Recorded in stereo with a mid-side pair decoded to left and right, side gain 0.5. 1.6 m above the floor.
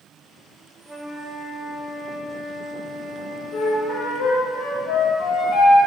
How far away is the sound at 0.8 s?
About 2.5 m.